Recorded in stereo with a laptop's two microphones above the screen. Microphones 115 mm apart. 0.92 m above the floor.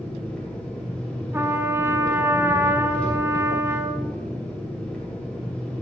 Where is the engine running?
10° left (ahead or behind), 2 m.